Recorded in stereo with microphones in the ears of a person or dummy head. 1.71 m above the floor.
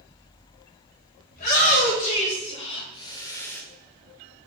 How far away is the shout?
About 4.5 m.